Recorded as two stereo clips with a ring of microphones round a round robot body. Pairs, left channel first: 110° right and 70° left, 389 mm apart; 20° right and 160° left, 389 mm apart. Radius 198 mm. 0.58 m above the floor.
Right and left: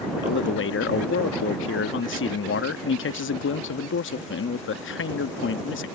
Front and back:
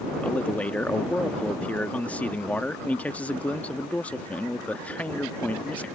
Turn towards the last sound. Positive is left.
turn(degrees=-105)